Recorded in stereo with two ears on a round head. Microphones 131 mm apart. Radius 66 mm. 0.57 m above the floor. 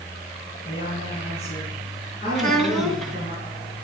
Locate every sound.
0.7 s a woman speaking: 45° left (ahead or behind), 7.5 m
2.4 s a child speaking: centre (ahead or behind), 3 m